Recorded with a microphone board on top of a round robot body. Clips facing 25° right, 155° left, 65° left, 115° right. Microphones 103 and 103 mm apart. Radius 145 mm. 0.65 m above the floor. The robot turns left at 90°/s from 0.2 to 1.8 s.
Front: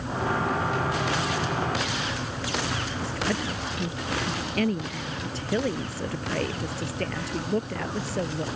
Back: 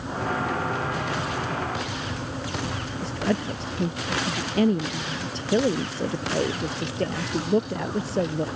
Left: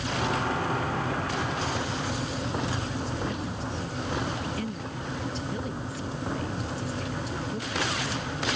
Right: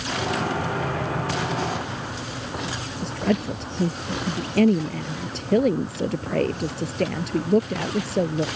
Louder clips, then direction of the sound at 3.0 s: Back 5 dB, right 7 dB; 135° right.